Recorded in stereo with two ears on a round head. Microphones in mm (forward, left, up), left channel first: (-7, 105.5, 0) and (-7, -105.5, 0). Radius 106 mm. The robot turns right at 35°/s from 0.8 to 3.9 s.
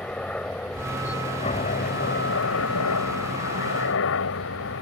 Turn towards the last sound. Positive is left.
turn(degrees=115)